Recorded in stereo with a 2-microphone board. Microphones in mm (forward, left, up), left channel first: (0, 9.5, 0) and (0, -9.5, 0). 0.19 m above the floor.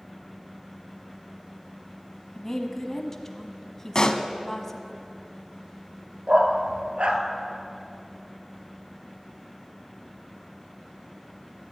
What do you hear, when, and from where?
2.4 s a woman speaking: 25° left (ahead or behind), 1.1 m
4.0 s a pop: 40° left (ahead or behind), 0.7 m
6.3 s a dog barking: 75° right (ahead or behind), 1.1 m